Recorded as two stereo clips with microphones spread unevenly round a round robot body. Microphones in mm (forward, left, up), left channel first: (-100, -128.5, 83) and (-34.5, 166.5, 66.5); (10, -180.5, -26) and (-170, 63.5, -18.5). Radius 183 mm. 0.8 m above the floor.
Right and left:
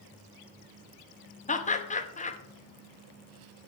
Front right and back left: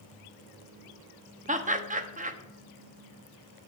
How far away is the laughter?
About 1.2 m.